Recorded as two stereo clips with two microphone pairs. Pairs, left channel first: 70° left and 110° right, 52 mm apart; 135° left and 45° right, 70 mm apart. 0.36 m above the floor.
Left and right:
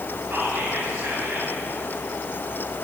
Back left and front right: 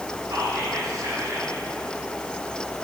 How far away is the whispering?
About 2.5 m.